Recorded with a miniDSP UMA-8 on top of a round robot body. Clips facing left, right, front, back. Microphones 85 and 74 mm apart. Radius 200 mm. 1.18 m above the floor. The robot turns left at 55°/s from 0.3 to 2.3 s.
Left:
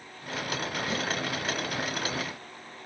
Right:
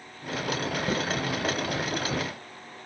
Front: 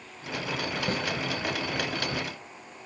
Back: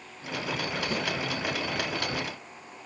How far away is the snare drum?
About 8.5 m.